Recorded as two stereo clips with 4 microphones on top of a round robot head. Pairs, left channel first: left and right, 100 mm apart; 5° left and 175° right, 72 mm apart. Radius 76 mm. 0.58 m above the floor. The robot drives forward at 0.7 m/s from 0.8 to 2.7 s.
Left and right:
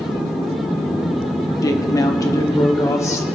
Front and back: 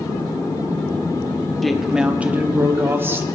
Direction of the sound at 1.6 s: 90° left.